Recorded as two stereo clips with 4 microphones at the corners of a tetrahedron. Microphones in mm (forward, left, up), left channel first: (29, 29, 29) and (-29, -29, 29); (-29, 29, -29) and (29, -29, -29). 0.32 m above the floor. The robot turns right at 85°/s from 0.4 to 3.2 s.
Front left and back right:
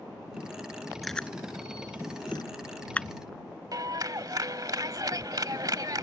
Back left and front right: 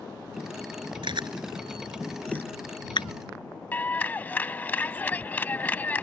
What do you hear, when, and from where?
1.0 s chewing: 45° right; by 3.1 s 130° left
3.7 s a clap: 160° right